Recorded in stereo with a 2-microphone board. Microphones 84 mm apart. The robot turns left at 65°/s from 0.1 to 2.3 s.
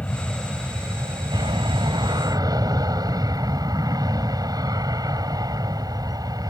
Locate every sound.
0.0 s an aircraft: 20° left; by 6.5 s 125° right